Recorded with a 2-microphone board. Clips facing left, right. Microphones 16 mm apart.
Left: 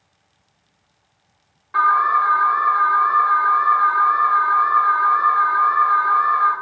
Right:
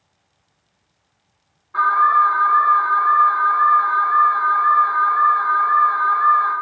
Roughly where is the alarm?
Left.